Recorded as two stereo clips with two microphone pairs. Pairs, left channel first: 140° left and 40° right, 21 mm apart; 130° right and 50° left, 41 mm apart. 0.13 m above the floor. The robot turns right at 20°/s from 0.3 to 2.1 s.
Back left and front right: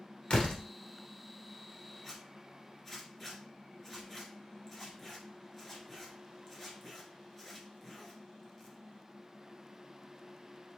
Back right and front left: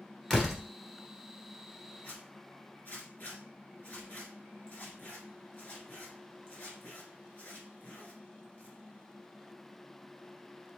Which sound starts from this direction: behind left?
A door slam, at 0.3 s.